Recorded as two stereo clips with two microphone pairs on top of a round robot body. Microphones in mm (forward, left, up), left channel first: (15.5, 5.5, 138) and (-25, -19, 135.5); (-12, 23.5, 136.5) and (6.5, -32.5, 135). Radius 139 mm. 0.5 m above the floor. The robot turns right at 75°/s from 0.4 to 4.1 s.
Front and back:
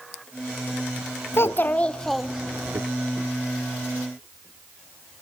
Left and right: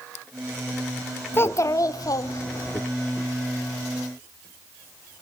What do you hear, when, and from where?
1.3 s a child speaking: 55° left, 1.2 m; by 2.8 s 165° left, 1.2 m